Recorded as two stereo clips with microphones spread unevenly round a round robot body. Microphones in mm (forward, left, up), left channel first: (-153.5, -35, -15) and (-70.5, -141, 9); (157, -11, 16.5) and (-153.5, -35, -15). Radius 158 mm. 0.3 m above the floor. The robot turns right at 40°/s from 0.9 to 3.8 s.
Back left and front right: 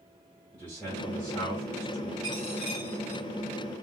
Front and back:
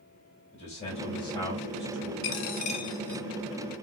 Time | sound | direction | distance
0.5 | a man speaking | 65° left | 1.9 m
2.2 | a dropped coin | 55° left | 0.6 m